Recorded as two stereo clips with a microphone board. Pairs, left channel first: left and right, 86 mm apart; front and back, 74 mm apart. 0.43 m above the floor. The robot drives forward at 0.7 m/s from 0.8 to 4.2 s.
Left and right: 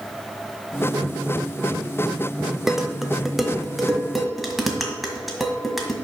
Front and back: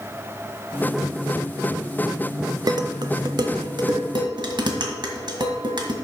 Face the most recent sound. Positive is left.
turn(degrees=180)